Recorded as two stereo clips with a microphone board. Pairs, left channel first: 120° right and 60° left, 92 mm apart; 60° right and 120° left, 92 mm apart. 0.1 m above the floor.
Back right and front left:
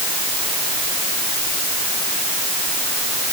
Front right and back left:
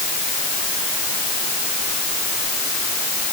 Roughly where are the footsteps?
No footsteps in this recording.